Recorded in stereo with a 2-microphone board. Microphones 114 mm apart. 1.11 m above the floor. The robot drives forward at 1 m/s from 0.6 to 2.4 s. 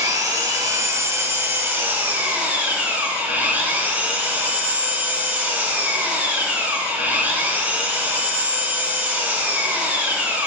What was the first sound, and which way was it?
An engine running, 35° right (ahead or behind).